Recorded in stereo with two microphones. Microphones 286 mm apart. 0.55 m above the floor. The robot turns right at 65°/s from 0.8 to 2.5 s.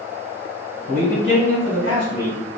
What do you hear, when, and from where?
0.9 s a man speaking: 140° right, 1.9 m; by 2.6 s 35° right, 1.9 m